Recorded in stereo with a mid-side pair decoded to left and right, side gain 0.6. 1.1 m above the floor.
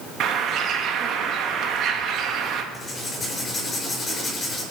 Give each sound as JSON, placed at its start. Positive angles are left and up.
{"t": 0.2, "sound": "a bird", "azimuth_deg": -55, "distance_m": 1.4}
{"t": 2.7, "sound": "writing", "azimuth_deg": 20, "distance_m": 5.0}